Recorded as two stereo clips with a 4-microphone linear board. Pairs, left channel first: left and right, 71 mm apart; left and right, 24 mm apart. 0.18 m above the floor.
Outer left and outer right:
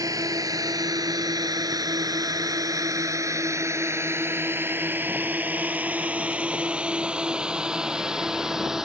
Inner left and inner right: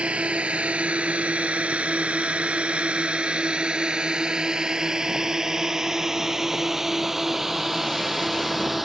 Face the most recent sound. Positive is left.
turn(degrees=-5)  # may be behind; listen again after turning